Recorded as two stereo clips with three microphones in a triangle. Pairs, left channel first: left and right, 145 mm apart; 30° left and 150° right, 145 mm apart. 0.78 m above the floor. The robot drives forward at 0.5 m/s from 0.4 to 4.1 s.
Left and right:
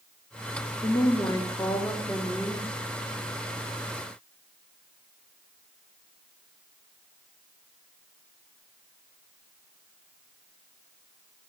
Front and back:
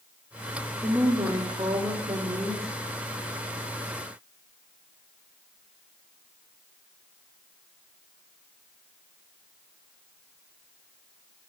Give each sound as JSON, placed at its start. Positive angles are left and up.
{"t": 0.8, "sound": "a woman speaking", "azimuth_deg": 140, "distance_m": 0.8}